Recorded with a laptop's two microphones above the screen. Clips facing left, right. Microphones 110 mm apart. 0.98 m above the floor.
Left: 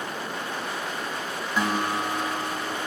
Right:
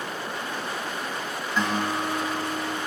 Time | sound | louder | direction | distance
1.6 | a guitar | even | 15° left (ahead or behind) | 1.3 m